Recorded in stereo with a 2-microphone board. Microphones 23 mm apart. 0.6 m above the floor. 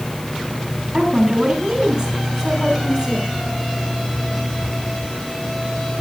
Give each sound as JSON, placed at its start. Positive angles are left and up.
{"t": 0.9, "sound": "a woman speaking", "side_deg": -35, "distance_m": 4.5}